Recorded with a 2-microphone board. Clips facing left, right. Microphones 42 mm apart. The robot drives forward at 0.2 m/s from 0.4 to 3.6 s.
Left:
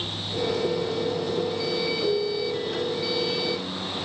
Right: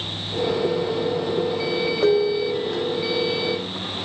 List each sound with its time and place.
2.0 s dishes clattering: 80° right, 1.3 m; by 2.9 s 70° right (ahead or behind), 1.3 m